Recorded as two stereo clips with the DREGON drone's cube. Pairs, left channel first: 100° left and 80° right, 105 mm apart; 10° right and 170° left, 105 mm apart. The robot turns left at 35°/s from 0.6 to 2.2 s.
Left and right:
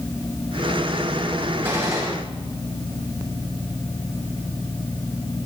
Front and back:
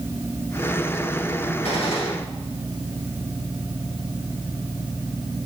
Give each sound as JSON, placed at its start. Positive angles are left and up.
{"t": 1.6, "sound": "a gunshot", "azimuth_deg": -15, "distance_m": 5.5}